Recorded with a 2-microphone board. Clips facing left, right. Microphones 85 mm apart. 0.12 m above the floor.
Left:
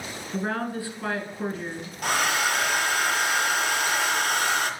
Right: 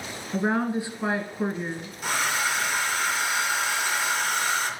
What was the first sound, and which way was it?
A woman speaking, 20° right (ahead or behind).